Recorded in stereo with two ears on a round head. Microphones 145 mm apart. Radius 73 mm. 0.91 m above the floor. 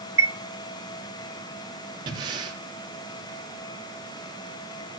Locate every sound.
0.2 s a chime: 15° right (ahead or behind), 0.6 m
2.1 s breathing: 30° right (ahead or behind), 2 m